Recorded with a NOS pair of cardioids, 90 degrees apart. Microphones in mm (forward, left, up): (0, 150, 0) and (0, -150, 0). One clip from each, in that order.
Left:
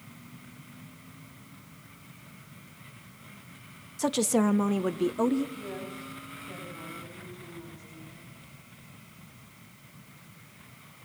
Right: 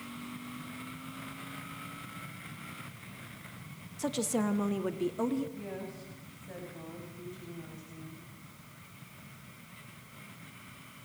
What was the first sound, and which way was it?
A woman speaking, 40° left.